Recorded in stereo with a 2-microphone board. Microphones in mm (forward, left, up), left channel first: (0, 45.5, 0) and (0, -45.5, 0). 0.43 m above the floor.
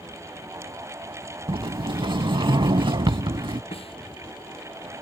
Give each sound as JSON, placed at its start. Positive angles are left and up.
{"t": 1.5, "sound": "a sliding door", "side_deg": -60}
{"t": 3.7, "sound": "a snare drum", "side_deg": 80}